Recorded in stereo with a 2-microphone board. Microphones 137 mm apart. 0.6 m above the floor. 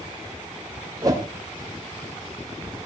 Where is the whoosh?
30° right (ahead or behind), 3 m.